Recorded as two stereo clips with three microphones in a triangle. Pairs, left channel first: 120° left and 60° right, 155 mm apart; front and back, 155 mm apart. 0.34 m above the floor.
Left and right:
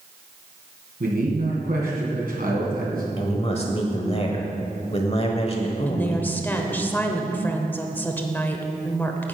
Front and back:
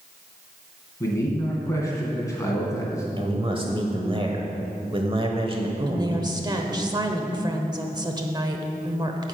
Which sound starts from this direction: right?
A man speaking, at 1.0 s.